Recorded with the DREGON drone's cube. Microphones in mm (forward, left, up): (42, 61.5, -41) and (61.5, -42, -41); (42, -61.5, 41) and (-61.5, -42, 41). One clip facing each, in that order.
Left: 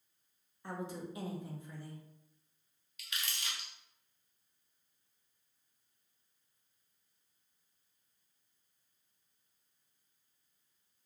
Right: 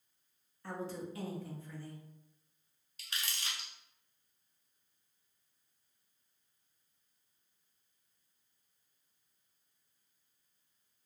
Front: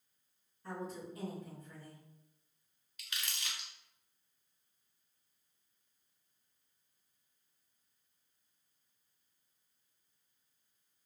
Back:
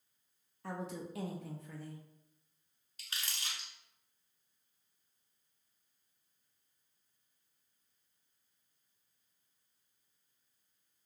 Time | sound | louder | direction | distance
0.6 | a woman speaking | right 1 dB, back 1 dB | 170° left | 0.7 m
3.0 | crumpling | even, even | 135° right | 0.7 m